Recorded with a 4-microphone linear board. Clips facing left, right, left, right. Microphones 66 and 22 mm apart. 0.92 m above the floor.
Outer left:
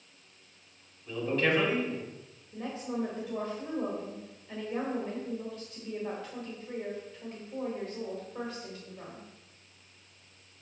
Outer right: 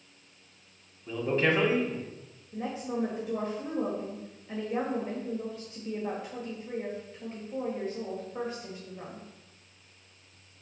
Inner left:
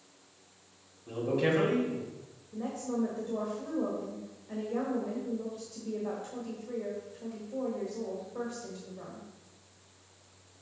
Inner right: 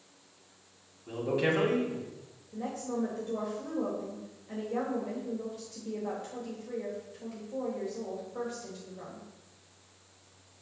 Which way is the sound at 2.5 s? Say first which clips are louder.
Outer right 2 dB, inner left 1 dB; 20° right (ahead or behind).